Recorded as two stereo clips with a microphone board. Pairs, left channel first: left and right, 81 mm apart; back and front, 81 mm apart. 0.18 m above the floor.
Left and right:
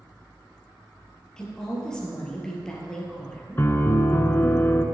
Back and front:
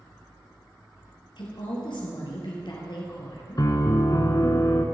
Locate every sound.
1.4 s a woman speaking: 170° left, 3 m
3.6 s a piano: 145° left, 0.8 m